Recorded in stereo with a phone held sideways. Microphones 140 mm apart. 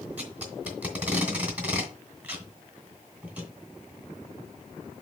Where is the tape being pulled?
10° right (ahead or behind), 2 m.